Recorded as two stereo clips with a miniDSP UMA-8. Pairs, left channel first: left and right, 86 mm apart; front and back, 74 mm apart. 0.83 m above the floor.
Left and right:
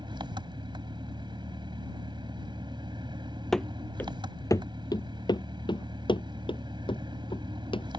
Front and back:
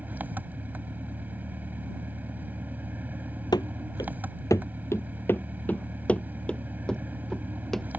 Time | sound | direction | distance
0.0 | an engine running | 115° right | ?
3.5 | running footsteps | 5° left | ?